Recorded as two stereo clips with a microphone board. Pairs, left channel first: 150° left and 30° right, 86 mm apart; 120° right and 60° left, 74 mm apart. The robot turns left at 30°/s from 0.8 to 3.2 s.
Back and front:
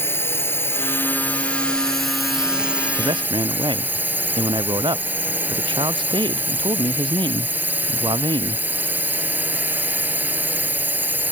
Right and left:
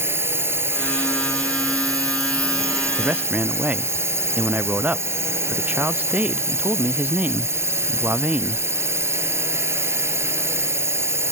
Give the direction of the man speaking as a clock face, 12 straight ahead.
12 o'clock.